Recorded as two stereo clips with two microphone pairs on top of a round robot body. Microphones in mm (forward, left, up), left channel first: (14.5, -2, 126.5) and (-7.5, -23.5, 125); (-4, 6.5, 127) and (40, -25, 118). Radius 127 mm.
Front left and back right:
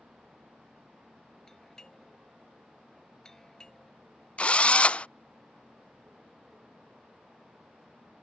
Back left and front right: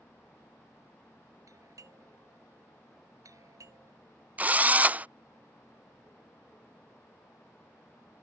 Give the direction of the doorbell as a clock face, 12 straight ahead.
1 o'clock.